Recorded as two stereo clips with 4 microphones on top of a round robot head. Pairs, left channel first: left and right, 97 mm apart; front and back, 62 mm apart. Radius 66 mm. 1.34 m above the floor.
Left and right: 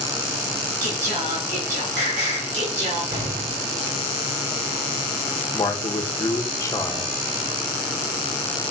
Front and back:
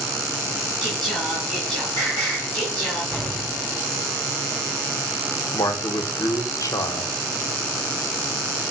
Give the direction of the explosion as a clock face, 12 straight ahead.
3 o'clock.